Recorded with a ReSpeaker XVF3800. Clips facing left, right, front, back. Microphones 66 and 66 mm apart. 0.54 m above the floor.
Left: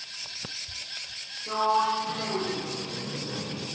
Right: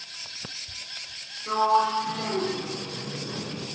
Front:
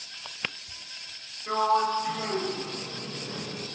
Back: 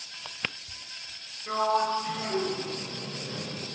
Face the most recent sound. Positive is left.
turn(degrees=-75)